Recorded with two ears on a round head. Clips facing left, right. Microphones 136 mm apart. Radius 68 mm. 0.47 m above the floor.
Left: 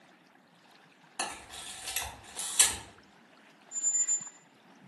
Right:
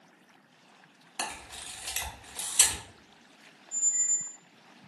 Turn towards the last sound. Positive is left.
turn(degrees=-15)  # may be behind; listen again after turning